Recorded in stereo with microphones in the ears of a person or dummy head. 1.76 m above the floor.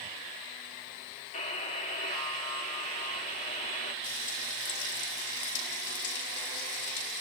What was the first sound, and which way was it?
A buzzer, 45° left (ahead or behind).